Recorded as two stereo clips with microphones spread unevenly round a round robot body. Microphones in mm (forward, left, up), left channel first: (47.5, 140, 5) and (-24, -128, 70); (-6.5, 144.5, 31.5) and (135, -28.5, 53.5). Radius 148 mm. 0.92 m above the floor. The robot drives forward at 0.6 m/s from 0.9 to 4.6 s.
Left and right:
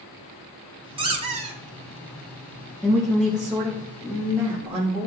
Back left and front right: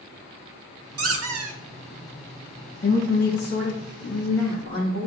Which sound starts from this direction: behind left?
A woman speaking, at 2.8 s.